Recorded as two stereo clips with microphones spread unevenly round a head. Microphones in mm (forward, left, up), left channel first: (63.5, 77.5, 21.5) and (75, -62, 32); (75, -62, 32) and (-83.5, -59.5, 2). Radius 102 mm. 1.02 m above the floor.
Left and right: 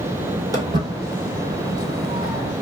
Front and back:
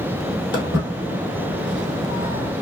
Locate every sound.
0.5 s footsteps: 35° right, 1.4 m; by 2.5 s 135° right, 1.3 m